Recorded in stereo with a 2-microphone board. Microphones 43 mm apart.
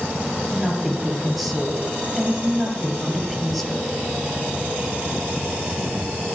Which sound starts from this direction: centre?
A woman speaking, at 0.5 s.